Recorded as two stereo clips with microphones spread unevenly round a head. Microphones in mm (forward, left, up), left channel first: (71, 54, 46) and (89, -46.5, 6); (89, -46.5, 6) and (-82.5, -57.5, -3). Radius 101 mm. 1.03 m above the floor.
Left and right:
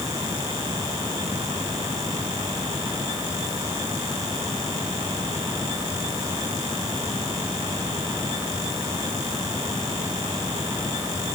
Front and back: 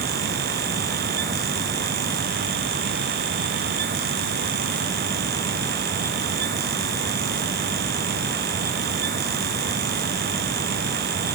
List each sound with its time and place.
Only background noise.